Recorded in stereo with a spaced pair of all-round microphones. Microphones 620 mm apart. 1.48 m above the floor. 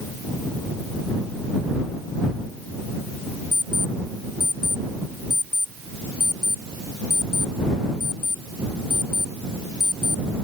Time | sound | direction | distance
3.5 | an alarm clock | 55° left (ahead or behind) | ?